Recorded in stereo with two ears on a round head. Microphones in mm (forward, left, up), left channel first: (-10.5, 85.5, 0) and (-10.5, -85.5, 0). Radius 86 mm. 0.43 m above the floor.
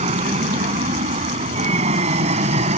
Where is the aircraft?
35° right (ahead or behind).